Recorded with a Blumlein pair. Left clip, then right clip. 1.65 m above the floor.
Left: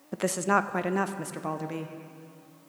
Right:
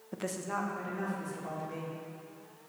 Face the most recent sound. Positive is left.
turn(degrees=65)